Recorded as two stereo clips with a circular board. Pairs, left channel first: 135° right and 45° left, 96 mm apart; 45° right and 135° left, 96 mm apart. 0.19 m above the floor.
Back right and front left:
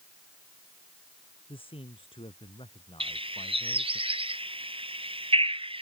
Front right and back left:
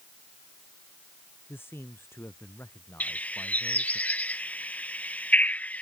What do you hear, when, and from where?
1.5 s a man speaking: 110° right
3.0 s a bird: 30° left